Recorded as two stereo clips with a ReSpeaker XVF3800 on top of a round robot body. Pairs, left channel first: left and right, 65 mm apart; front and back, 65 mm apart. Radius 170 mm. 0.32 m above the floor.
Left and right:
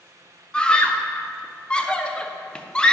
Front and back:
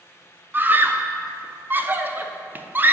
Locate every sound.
0.5 s a scream: 155° left, 0.9 m